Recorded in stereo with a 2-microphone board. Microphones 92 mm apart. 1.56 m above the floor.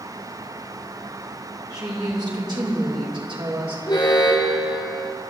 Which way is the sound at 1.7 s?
50° right (ahead or behind).